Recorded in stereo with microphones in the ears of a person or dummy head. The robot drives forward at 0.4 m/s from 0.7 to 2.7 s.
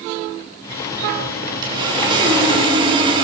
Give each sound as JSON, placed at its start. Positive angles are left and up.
{"t": 1.6, "sound": "sawing", "side_deg": -25, "distance_m": 3.0}